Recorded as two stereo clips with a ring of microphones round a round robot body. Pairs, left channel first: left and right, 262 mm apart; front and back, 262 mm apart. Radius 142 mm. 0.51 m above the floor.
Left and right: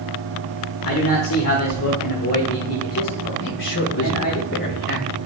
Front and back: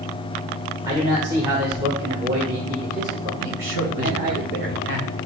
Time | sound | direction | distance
0.8 | a man speaking | 105° left | 1.3 m
3.4 | a man speaking | 135° left | 2 m